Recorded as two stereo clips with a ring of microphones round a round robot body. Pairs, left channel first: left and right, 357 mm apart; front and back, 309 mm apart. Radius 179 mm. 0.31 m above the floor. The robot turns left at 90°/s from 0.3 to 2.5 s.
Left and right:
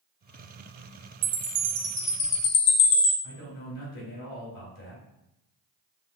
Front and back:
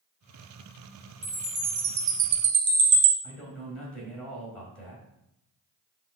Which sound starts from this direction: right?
A chime, at 1.2 s.